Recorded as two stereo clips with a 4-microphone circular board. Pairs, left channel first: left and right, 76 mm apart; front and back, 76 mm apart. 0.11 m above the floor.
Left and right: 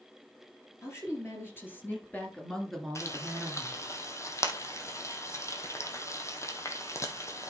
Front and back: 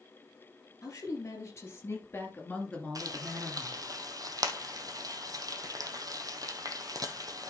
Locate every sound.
0.8 s a woman speaking: 45° left, 3 m; by 3.8 s 125° right, 1.8 m
3.0 s frying: 140° left, 1.0 m